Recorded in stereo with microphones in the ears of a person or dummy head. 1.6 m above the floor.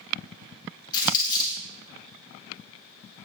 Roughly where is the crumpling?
Centre.